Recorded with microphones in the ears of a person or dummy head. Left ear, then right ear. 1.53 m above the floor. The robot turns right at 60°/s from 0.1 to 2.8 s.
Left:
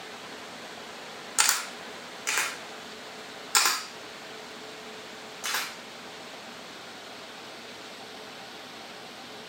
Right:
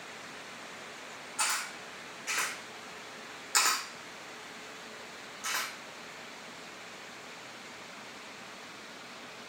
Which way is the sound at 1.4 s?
60° left (ahead or behind).